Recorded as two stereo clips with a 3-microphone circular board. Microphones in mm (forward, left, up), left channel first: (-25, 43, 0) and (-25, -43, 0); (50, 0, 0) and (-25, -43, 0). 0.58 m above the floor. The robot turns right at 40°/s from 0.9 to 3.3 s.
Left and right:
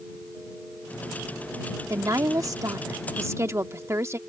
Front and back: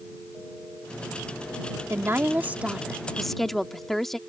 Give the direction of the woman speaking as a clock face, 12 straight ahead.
4 o'clock.